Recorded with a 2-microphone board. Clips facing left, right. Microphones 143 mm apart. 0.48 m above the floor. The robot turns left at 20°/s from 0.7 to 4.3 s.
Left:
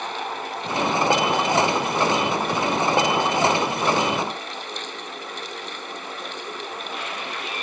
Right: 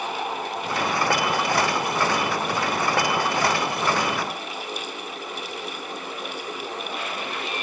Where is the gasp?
No gasp in this recording.